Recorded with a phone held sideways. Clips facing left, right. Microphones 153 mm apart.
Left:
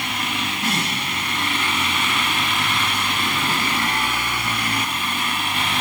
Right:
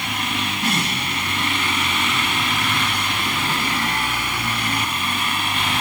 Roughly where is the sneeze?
I don't hear a sneeze.